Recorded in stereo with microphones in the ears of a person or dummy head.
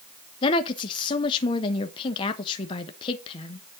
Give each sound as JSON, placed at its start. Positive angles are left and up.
{"t": 0.4, "sound": "a woman speaking", "side_deg": 25, "distance_m": 1.0}